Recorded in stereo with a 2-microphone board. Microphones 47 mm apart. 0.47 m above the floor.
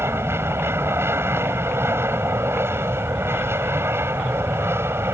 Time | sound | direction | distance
0.0 | an aircraft | 60° right (ahead or behind) | ?